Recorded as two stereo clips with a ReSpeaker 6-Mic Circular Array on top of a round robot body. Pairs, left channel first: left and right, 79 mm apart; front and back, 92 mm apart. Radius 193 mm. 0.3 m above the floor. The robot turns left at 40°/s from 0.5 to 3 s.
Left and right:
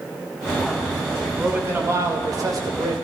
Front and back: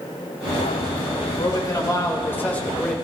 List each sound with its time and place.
1.4 s a man speaking: 20° right, 2 m; by 3.0 s 85° right, 2 m